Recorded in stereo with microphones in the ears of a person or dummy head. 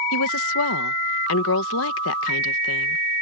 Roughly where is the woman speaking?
Left.